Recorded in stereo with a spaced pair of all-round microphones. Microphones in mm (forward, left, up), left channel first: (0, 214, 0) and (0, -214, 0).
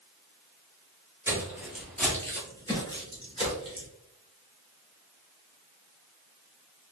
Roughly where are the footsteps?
Centre.